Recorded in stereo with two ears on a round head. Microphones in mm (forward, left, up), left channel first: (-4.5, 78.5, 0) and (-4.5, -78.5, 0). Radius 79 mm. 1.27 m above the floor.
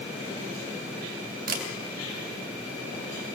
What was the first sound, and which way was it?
A camera shutter, 55° right (ahead or behind).